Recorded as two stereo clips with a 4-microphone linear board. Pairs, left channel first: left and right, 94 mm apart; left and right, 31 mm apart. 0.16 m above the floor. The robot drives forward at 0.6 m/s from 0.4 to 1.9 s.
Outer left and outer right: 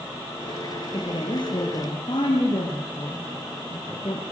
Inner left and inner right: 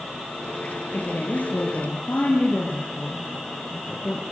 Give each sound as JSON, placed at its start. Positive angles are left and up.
{"t": 0.9, "sound": "a woman speaking", "side_deg": 55, "distance_m": 5.0}